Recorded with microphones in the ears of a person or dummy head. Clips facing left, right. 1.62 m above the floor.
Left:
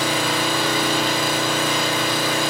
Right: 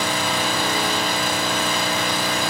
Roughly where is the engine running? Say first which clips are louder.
Left 2 dB; centre.